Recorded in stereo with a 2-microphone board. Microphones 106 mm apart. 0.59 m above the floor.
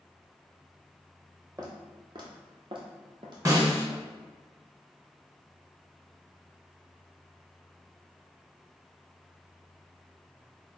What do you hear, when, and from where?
1.6 s footsteps: 35° right (ahead or behind), 1.1 m; by 4.0 s 40° right (ahead or behind), 1.4 m
3.5 s a snare drum: 30° right (ahead or behind), 1.1 m